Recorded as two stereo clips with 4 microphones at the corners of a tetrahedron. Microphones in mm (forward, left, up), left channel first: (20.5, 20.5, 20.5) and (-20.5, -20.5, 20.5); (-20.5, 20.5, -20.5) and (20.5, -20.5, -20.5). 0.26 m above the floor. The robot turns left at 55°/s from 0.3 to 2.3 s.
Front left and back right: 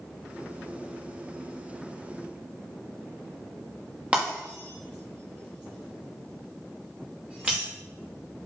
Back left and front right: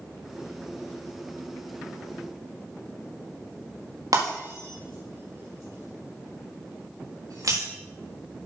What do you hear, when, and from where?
4.1 s breaking glass: 65° right, 5.5 m